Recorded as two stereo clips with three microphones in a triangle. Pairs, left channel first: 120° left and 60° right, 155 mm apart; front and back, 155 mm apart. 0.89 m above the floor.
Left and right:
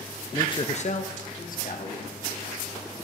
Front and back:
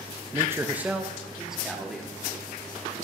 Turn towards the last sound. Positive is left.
turn(degrees=90)